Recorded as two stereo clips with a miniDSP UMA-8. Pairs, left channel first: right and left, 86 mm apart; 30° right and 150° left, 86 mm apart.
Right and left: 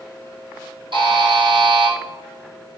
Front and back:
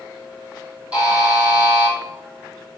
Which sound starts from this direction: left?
A buzzer, at 0.9 s.